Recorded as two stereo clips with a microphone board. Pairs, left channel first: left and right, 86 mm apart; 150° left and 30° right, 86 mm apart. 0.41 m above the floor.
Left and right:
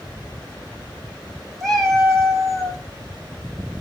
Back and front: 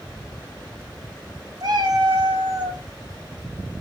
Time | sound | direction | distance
1.6 | a cat meowing | 5° left | 1.0 m